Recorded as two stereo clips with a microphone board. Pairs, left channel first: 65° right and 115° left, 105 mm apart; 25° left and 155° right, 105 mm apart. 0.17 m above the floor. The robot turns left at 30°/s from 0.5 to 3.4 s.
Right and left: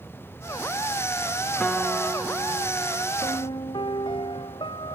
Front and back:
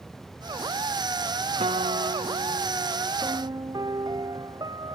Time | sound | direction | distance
1.6 | a guitar | 150° right | ?
3.2 | a piano | 100° right | ?